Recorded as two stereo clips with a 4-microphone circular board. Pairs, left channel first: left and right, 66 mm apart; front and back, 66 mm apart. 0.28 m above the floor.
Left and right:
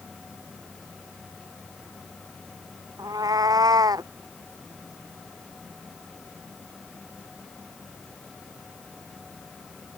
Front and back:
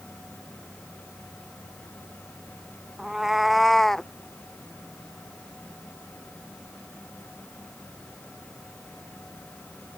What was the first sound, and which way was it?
A cat meowing, 95° right.